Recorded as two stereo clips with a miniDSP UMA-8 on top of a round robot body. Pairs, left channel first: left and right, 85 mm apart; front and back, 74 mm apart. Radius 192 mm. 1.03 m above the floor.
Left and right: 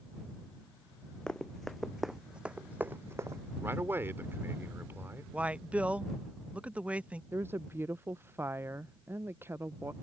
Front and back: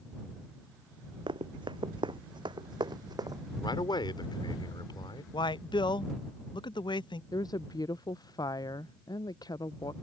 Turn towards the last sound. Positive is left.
turn(degrees=-25)